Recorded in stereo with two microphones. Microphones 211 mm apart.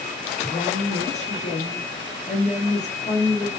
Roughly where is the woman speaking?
Left.